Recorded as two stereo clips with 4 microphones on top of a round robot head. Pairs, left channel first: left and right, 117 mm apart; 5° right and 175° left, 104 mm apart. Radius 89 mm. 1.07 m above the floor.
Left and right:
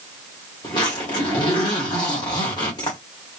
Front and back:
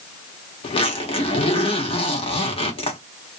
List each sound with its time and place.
0.6 s a zipper: 25° left, 1.4 m